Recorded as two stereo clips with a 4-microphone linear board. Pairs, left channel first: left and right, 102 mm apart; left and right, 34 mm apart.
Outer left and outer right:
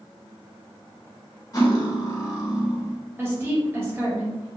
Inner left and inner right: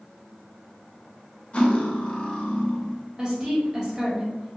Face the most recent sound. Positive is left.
turn(degrees=-20)  # may be behind; listen again after turning